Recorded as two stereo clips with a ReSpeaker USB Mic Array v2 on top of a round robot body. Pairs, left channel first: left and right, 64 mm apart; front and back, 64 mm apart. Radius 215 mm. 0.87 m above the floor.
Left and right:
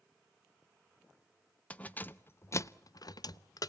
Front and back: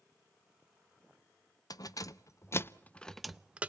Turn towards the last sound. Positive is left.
turn(degrees=115)